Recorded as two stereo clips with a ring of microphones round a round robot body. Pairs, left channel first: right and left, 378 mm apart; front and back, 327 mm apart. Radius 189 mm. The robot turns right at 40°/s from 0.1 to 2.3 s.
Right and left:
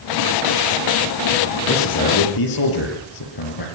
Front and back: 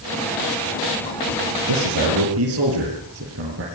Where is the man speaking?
150° right, 7.5 m; by 3.6 s 125° right, 7.5 m.